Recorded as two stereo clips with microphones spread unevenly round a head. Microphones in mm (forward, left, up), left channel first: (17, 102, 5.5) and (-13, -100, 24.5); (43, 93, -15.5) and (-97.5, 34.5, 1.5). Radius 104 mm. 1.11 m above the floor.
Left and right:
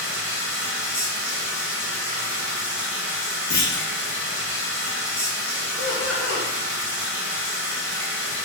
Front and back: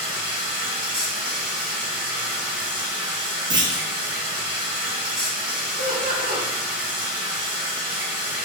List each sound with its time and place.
0.0 s running water: 175° left, 1.5 m
3.5 s a clunk: 160° left, 0.6 m
5.8 s laughter: 165° left, 1.6 m